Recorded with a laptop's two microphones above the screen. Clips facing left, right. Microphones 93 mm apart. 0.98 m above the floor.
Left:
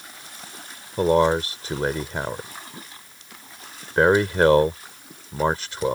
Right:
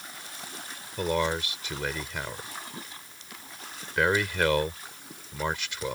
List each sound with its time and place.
1.0 s a man speaking: 40° left (ahead or behind)